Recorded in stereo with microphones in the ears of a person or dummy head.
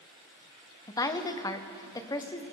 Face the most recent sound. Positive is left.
turn(degrees=20)  # may be behind; listen again after turning